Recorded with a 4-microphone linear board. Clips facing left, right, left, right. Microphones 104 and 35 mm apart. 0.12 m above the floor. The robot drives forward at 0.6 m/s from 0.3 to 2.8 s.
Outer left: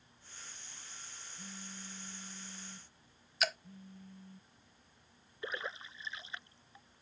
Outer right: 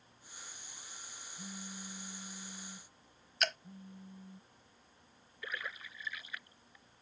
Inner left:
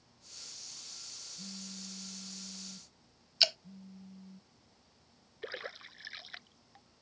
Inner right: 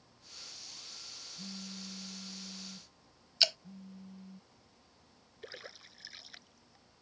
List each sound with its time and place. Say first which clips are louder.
1.4 s a phone buzzing: outer right 3 dB, inner right 2 dB; 25° right (ahead or behind); by 4.4 s 15° right (ahead or behind)
3.4 s dripping: outer left 1 dB, even; 5° left (ahead or behind)
5.4 s a splash: outer left 3 dB, inner left 6 dB; 30° left (ahead or behind)